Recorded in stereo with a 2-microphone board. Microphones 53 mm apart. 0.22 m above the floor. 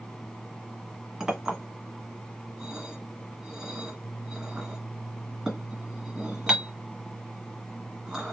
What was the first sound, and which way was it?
A clink, 10° right (ahead or behind).